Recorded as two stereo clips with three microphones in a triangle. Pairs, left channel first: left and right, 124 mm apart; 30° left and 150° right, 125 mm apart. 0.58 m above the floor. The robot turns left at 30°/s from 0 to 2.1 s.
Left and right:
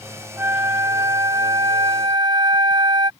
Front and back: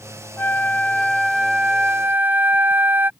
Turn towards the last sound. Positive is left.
turn(degrees=-90)